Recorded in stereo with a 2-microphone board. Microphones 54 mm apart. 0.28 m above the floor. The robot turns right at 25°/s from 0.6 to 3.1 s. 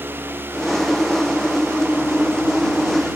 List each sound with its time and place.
Only background noise.